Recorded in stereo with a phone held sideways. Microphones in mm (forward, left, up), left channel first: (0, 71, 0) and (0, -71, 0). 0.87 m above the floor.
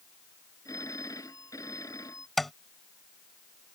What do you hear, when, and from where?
0.7 s a phone ringing: 25° left (ahead or behind)
2.4 s tapping: centre (ahead or behind)